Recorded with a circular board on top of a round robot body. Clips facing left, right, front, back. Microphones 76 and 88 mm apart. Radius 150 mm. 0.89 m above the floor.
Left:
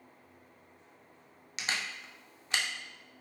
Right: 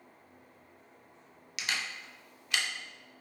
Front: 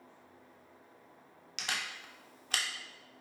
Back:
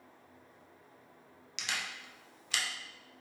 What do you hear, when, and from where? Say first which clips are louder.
1.6 s a camera shutter: even, front 1 dB; 35° left, 0.7 m